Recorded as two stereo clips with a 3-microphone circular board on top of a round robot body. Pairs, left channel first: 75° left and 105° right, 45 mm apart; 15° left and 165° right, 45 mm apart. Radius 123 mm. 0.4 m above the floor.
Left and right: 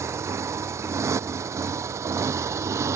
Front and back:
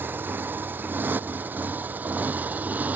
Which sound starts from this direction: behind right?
A motorcycle, at 0.0 s.